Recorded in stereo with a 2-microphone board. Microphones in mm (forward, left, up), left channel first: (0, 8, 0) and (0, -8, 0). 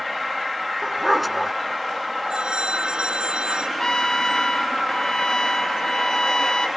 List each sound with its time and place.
0.8 s a dog barking: 5° right (ahead or behind)
2.3 s a phone ringing: 85° right
3.8 s a trumpet: 50° left (ahead or behind)